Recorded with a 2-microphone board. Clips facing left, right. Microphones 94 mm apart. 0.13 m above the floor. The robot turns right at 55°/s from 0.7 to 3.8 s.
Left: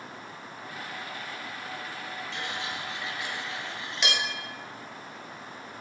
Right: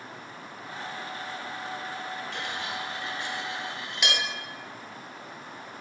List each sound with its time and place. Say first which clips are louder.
2.3 s cutlery clinking: right 1 dB; 60° right (ahead or behind), 1.4 m; by 4.2 s 5° right (ahead or behind), 1.4 m